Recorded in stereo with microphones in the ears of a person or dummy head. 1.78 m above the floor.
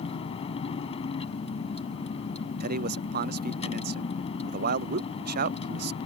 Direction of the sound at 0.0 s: 30° left (ahead or behind).